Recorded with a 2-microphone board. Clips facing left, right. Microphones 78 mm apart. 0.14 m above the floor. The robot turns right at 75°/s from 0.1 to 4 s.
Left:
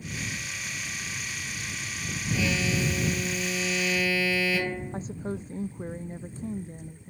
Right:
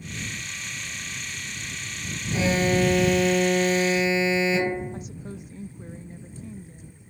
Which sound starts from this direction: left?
A woman speaking, at 4.9 s.